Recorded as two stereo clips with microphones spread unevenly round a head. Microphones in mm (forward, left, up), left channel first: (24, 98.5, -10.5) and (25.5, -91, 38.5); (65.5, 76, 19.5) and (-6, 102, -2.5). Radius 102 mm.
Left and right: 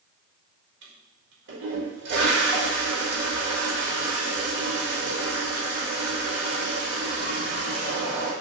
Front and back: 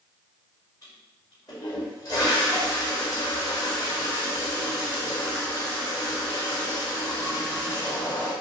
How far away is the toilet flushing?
About 1.7 m.